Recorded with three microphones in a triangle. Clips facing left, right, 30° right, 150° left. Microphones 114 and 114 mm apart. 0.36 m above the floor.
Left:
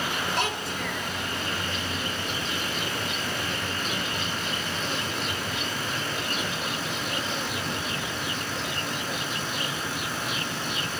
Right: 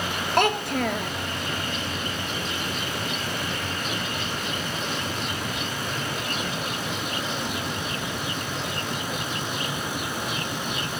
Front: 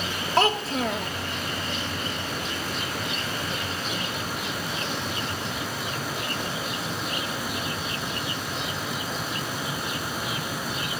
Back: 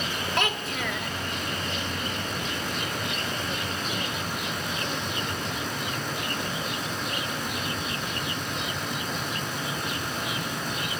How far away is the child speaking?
About 0.7 m.